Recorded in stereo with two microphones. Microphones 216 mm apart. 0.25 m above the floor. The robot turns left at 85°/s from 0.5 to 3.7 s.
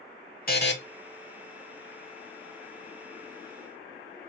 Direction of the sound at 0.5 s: 45° left (ahead or behind).